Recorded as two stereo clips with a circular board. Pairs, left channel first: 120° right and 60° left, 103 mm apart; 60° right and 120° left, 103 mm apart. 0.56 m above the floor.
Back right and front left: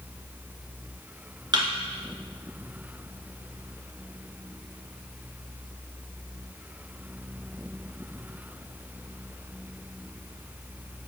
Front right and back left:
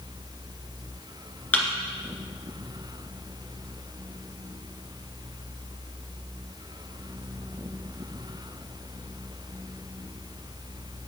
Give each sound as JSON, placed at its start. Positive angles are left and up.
{"t": 1.5, "sound": "a thud", "azimuth_deg": 15, "distance_m": 2.0}